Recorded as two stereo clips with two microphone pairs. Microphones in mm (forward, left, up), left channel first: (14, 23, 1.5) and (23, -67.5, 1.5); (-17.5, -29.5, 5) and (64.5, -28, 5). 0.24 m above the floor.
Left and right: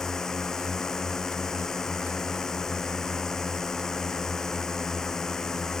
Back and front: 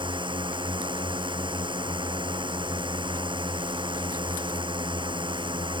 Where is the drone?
10° left.